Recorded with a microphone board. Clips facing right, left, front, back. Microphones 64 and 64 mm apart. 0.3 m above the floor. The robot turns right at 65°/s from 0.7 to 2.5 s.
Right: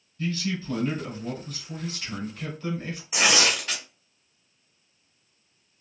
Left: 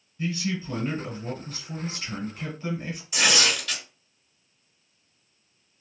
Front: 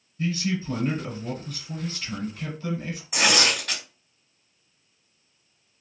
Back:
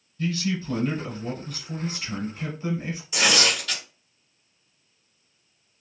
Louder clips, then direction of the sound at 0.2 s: Even, even; 40° left.